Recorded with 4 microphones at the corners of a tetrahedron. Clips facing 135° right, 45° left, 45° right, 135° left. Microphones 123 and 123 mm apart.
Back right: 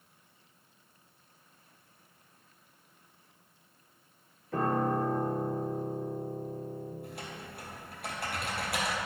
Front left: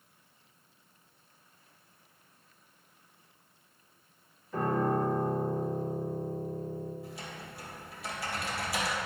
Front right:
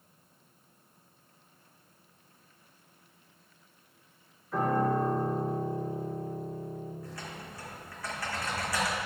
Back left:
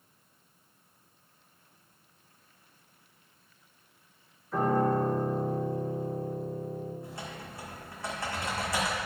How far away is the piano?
About 3 m.